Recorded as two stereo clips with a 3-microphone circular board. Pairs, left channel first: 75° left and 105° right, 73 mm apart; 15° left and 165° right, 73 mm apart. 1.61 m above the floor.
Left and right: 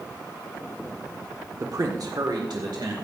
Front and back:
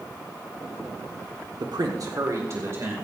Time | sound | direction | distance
1.6 | a man speaking | 150° right | 1.3 m